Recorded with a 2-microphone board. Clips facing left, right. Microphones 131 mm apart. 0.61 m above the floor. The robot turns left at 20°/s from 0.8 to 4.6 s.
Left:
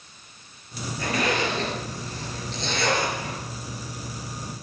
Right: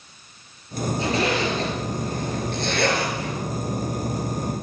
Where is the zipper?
25° right (ahead or behind), 4 m; by 3.4 s 75° right (ahead or behind), 4 m.